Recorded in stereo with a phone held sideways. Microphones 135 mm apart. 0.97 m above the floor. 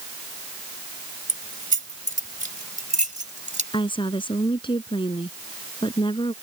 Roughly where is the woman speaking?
Left.